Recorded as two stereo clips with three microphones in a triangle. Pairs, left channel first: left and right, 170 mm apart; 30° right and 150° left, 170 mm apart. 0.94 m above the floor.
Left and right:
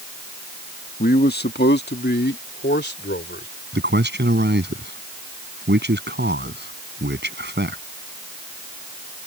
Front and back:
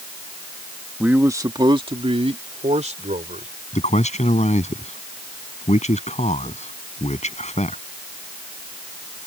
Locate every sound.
1.0 s a man speaking: 65° left; by 3.5 s 105° left
3.7 s a man speaking: 80° right